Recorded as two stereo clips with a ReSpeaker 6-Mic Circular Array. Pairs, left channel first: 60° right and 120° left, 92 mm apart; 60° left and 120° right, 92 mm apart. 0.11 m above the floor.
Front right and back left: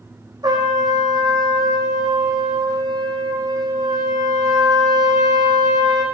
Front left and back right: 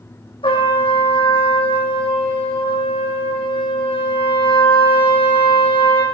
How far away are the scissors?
No scissors in this recording.